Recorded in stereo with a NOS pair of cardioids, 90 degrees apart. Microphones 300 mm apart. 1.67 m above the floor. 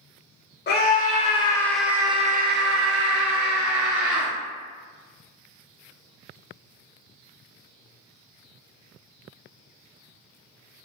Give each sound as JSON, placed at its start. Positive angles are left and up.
{"t": 0.7, "sound": "a scream", "azimuth_deg": 35, "distance_m": 1.0}